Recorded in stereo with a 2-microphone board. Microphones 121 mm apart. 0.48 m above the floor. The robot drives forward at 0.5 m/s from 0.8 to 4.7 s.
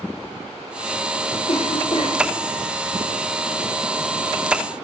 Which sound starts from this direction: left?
A cough, at 1.5 s.